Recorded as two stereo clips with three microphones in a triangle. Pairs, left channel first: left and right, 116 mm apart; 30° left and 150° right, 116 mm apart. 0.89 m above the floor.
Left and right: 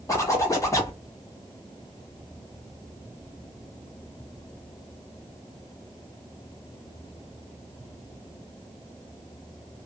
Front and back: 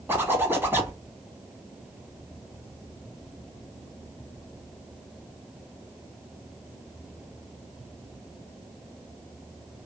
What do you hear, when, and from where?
0.1 s a zipper: 145° left, 1.1 m